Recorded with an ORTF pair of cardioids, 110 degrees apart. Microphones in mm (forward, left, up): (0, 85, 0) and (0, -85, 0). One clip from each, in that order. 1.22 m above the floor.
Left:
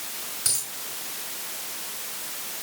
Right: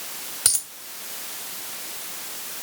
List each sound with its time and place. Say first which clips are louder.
0.5 s a dropped coin: right 4 dB; 65° right, 2.0 m